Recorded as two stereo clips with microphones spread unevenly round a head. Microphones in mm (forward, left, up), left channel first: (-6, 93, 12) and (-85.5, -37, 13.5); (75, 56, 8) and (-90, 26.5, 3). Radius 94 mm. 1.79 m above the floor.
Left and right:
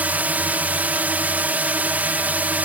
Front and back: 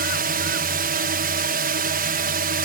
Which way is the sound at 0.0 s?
160° left.